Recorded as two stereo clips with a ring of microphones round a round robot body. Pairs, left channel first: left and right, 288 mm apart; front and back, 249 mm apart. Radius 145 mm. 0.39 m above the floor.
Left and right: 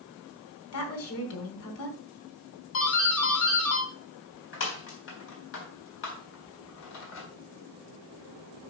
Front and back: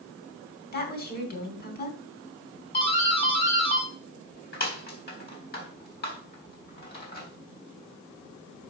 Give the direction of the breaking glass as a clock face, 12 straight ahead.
No breaking glass in this recording.